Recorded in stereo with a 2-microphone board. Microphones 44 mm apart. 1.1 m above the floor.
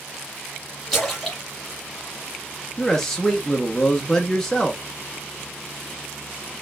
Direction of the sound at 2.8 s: 10° left (ahead or behind).